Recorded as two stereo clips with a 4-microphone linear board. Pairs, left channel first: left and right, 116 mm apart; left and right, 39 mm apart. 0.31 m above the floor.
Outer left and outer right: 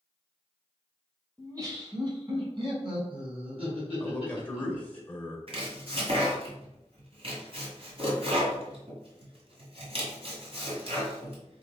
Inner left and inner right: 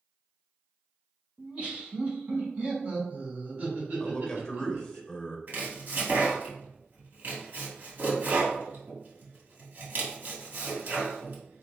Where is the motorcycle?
No motorcycle in this recording.